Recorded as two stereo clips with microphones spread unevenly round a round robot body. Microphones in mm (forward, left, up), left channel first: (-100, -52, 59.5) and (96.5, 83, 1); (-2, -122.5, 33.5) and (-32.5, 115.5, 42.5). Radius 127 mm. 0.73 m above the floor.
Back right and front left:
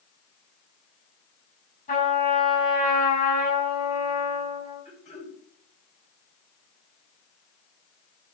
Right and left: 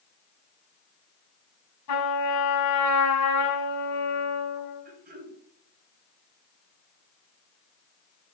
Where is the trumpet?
85° right, 6 m.